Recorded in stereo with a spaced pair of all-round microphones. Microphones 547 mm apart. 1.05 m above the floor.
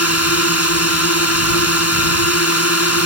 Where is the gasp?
I don't hear a gasp.